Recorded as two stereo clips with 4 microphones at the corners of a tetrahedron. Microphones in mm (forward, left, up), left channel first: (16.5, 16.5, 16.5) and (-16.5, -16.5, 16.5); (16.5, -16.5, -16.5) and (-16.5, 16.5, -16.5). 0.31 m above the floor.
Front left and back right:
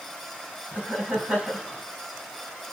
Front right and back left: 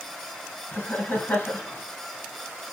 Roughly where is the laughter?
Right.